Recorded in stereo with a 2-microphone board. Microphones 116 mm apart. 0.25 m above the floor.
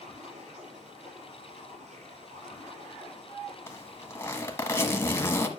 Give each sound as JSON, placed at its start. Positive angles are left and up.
{"t": 0.0, "sound": "running water", "side_deg": -75, "distance_m": 5.0}
{"t": 3.7, "sound": "a zipper", "side_deg": 20, "distance_m": 1.2}